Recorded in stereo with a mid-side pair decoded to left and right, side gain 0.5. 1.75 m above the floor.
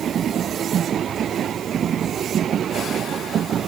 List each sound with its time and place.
Only background noise.